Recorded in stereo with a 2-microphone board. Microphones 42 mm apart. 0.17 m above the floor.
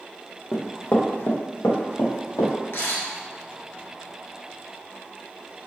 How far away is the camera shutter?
About 1.0 m.